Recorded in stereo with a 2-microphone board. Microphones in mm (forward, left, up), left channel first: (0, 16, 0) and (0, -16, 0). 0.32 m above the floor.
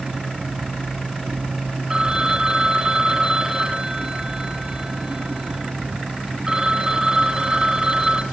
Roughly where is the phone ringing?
Right.